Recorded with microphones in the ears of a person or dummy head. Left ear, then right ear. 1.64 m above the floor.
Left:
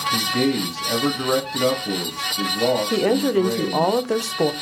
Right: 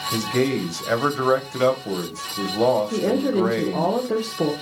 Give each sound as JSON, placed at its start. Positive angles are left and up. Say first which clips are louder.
{"t": 0.1, "sound": "a man speaking", "louder": "right 2 dB", "side_deg": -50, "distance_m": 1.2}
{"t": 2.9, "sound": "a woman speaking", "louder": "left 3 dB", "side_deg": 45, "distance_m": 0.6}